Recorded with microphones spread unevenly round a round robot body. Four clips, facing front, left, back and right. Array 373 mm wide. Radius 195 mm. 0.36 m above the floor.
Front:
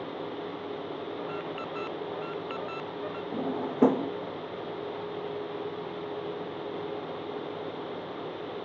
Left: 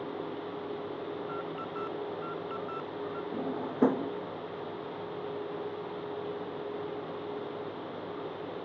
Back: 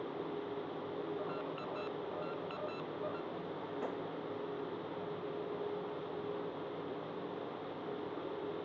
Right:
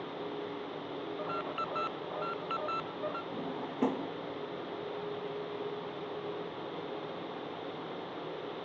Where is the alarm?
70° right.